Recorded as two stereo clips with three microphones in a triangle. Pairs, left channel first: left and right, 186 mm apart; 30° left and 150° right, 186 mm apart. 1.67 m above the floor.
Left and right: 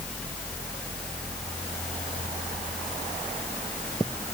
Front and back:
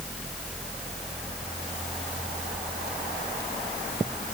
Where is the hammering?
I don't hear hammering.